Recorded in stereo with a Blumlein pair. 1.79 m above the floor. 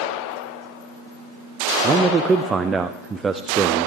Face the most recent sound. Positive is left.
turn(degrees=-15)